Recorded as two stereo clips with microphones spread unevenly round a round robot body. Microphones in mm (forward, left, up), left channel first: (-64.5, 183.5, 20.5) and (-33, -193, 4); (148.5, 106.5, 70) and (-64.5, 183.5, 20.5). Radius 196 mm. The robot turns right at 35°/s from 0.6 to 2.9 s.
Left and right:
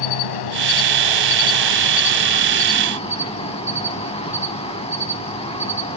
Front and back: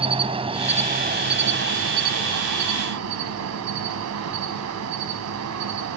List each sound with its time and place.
0.0 s an insect: 90° left, 0.9 m; by 6.0 s 170° left, 0.9 m